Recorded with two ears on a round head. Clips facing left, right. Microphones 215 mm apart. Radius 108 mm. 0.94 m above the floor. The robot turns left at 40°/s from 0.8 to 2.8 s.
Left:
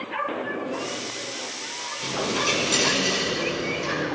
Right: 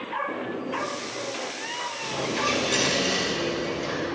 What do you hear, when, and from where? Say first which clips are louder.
2.0 s a dropped coin: left 2 dB; 40° left, 1.6 m; by 4.0 s 5° left, 1.6 m